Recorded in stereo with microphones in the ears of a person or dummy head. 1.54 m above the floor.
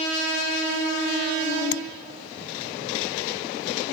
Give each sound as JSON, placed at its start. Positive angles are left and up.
{"t": 1.7, "sound": "tapping", "side_deg": 60}